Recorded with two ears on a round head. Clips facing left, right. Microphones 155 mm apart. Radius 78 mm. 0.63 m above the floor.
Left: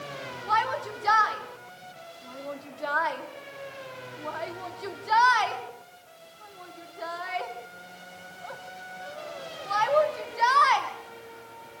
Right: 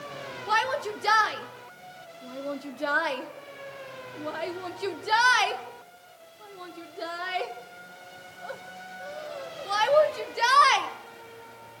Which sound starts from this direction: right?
A shout, at 0.5 s.